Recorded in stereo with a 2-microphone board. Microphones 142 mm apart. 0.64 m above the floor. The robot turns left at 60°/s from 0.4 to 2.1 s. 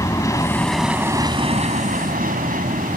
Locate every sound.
0.0 s an aircraft: 20° left; by 3.0 s 80° right